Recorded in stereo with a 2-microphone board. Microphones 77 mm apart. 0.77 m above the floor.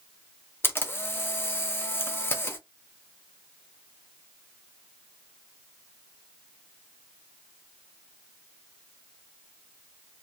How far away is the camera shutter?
About 0.5 m.